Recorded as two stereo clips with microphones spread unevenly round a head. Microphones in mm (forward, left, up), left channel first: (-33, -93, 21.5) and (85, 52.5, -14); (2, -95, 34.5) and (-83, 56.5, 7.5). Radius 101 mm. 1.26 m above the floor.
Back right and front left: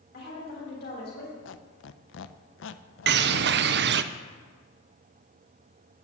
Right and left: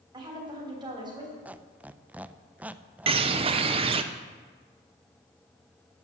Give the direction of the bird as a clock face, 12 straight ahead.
10 o'clock.